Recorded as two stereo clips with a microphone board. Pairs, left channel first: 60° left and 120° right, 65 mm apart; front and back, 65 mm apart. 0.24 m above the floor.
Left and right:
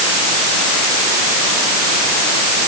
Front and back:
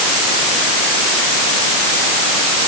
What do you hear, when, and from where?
Only background noise.